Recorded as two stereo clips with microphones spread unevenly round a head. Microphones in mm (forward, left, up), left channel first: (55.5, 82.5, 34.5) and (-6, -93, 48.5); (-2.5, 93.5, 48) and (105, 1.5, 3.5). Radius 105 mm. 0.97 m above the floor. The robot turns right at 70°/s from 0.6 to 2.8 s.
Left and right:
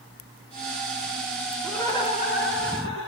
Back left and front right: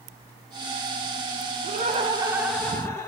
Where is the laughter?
20° right, 2.5 m; by 3.1 s 65° left, 2.5 m.